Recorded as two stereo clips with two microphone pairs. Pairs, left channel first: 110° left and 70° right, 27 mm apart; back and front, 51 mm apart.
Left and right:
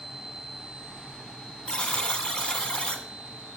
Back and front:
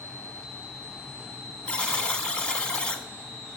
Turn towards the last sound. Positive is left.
turn(degrees=125)